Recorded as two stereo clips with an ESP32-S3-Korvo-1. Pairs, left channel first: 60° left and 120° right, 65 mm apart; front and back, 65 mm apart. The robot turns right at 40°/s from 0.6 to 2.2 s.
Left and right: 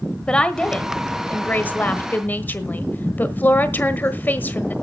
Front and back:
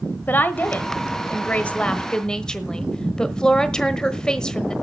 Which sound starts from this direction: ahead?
A woman speaking, at 0.3 s.